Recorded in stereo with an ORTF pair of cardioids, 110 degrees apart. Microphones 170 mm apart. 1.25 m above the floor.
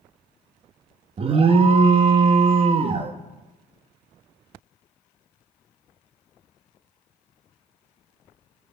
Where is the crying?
No crying in this recording.